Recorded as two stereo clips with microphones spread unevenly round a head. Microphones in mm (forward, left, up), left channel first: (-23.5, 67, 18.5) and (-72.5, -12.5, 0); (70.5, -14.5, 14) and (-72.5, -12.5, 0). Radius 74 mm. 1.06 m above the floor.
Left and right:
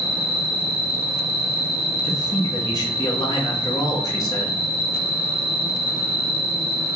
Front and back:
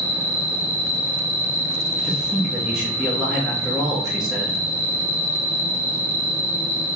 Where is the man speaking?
100° left, 0.8 m.